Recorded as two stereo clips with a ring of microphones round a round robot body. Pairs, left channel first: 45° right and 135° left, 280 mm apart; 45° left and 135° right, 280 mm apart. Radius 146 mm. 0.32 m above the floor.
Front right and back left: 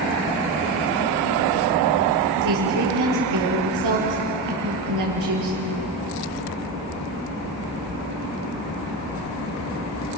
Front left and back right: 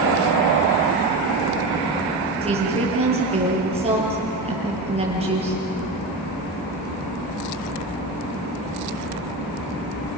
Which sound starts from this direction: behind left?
A woman speaking, at 2.4 s.